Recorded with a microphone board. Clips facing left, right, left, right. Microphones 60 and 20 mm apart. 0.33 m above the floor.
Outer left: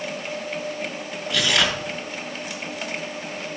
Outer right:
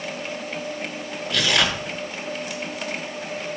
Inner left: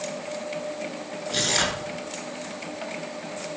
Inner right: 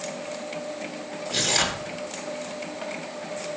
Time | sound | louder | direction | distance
1.3 | tearing paper | even, even | centre (ahead or behind) | 1.4 m